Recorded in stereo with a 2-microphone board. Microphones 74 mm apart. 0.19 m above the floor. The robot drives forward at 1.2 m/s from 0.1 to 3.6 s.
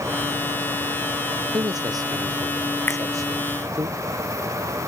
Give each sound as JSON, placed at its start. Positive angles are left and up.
{"t": 1.5, "sound": "a man speaking", "side_deg": -60}
{"t": 2.9, "sound": "a finger snap", "side_deg": 30}